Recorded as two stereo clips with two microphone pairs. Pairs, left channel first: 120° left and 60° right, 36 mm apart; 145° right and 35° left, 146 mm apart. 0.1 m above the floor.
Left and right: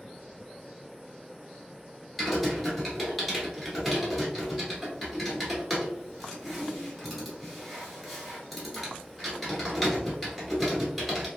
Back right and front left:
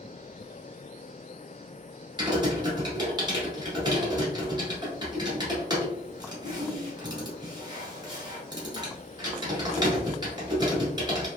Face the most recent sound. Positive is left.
turn(degrees=30)